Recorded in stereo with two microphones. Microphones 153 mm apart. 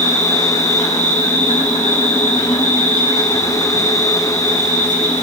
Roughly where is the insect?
Left.